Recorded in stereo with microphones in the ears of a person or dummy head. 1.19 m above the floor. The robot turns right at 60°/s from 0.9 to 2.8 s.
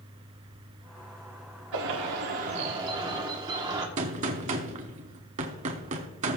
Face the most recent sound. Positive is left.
turn(degrees=-40)  # may be behind; listen again after turning